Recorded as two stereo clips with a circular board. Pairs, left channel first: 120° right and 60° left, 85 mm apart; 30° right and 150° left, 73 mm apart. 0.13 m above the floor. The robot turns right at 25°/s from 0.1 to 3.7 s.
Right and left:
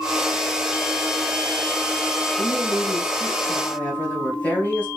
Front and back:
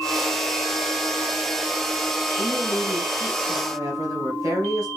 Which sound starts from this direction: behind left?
A woman speaking, at 2.4 s.